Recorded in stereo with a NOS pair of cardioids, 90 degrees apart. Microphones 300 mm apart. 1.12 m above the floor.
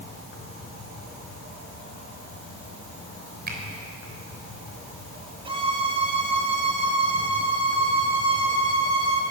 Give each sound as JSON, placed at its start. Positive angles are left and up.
{"t": 0.0, "sound": "an insect", "azimuth_deg": 40, "distance_m": 4.0}
{"t": 3.5, "sound": "a finger snap", "azimuth_deg": -30, "distance_m": 3.5}
{"t": 5.5, "sound": "a violin", "azimuth_deg": -15, "distance_m": 2.0}